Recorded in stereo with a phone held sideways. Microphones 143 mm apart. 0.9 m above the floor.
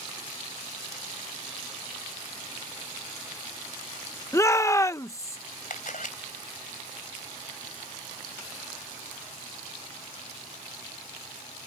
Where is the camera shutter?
70° left (ahead or behind).